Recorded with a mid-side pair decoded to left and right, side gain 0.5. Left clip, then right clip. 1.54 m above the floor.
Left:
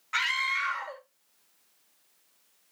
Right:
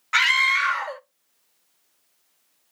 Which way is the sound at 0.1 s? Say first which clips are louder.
Right 9 dB; 55° right.